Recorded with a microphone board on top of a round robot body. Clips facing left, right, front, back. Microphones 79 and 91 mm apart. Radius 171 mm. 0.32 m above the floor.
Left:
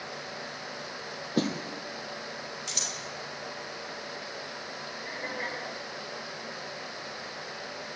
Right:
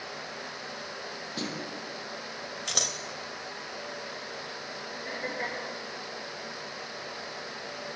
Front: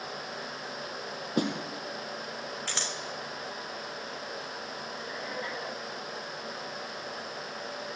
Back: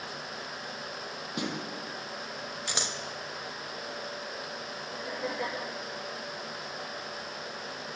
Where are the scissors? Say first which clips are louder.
Right 3 dB, back 1 dB; 110° right, 2.5 m.